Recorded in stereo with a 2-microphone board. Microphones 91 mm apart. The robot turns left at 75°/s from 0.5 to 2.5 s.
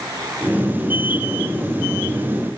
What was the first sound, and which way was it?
Only background noise.